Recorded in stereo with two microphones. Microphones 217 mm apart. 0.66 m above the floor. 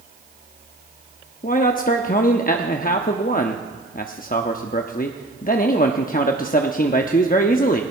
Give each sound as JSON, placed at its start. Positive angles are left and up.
{"t": 1.4, "sound": "a man speaking", "side_deg": 40, "distance_m": 0.7}